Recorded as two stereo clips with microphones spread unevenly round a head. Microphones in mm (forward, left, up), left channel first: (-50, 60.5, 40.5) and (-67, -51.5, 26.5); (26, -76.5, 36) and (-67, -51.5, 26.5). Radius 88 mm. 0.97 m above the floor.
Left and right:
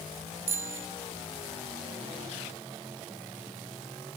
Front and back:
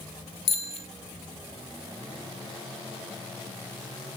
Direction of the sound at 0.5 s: 20° right.